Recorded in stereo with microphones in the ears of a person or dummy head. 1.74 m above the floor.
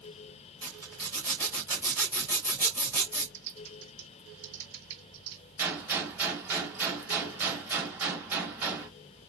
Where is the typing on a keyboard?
85° right, 1.8 m.